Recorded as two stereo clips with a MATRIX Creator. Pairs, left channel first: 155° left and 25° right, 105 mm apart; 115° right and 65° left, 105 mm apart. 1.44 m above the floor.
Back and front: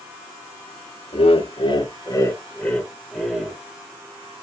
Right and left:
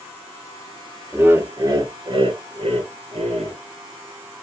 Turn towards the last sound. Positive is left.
turn(degrees=60)